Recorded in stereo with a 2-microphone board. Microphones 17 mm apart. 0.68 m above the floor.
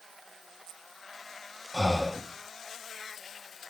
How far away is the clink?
I don't hear a clink.